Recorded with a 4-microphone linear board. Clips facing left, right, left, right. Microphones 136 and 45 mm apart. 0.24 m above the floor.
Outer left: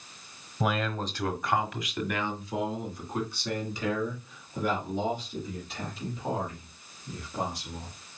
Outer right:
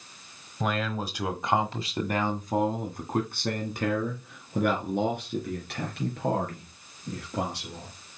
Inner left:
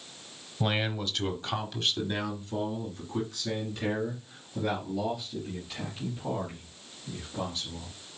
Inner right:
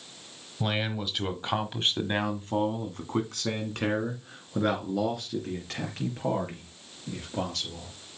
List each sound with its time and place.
0.6 s a man speaking: 5° left (ahead or behind), 1.2 m; by 7.9 s 75° right (ahead or behind), 5 m